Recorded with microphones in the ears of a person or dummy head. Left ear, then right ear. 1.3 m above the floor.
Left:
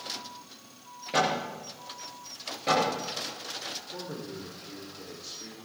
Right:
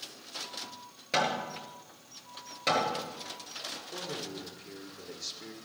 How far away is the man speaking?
About 3 m.